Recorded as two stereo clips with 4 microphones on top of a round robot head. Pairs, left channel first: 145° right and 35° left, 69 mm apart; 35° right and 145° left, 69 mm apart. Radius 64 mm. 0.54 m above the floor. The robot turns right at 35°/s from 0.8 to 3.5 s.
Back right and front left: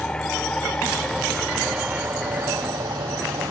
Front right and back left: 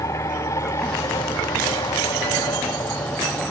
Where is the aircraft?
70° right; by 3.5 s 25° left.